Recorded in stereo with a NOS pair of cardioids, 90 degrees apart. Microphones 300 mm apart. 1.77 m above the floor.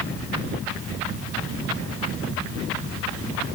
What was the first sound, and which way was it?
Only background noise.